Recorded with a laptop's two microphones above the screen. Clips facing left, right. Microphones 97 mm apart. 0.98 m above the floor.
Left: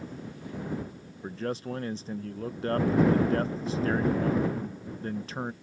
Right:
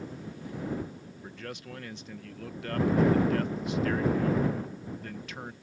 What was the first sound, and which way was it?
A man speaking, 35° left (ahead or behind).